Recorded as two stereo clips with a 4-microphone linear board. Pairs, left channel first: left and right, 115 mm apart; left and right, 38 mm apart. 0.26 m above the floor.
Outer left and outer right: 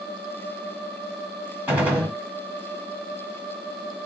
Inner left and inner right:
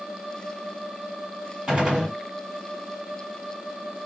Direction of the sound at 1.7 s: 10° right (ahead or behind).